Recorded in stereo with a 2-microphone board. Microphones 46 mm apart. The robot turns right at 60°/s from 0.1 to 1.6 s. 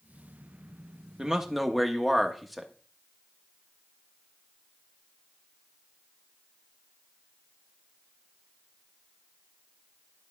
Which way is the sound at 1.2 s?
15° right (ahead or behind).